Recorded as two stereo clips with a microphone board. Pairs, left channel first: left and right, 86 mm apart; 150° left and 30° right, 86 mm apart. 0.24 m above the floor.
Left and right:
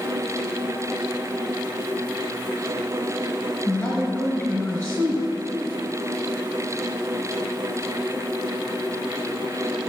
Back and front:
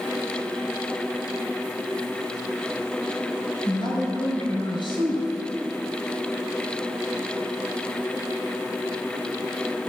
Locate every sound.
3.6 s a man speaking: 170° left, 3.5 m